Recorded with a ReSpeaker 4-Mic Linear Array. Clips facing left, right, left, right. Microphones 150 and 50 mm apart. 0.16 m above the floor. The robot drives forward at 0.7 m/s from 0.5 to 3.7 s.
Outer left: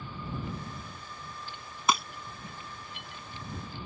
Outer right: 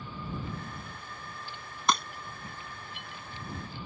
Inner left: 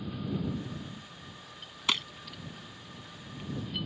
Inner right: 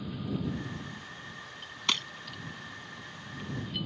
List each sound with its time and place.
1.9 s breaking glass: 5° left (ahead or behind)